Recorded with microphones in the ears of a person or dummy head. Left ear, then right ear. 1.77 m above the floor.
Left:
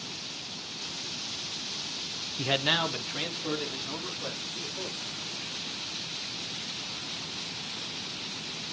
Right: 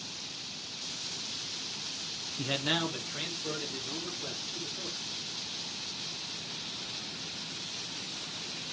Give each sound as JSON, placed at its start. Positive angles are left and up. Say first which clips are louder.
{"t": 2.4, "sound": "a man speaking", "louder": "left 5 dB", "side_deg": 0, "distance_m": 0.6}